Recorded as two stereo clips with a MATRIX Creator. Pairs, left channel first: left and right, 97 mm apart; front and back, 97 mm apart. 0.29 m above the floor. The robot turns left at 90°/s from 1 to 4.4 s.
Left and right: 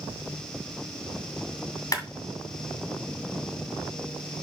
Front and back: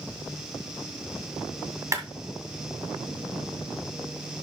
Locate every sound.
1.9 s a clap: 130° left, 1.9 m; by 2.0 s 120° left, 1.9 m